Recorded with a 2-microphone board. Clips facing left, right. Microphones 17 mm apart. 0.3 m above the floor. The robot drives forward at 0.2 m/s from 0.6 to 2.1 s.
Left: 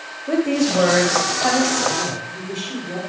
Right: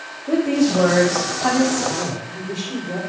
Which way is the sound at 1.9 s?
25° left (ahead or behind).